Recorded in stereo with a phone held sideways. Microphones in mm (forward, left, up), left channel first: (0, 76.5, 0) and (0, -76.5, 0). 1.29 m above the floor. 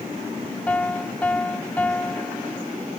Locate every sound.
0.7 s a piano: 10° left (ahead or behind)